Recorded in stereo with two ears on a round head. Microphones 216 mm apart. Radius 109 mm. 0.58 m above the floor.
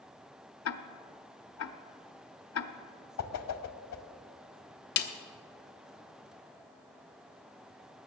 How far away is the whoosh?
About 0.8 m.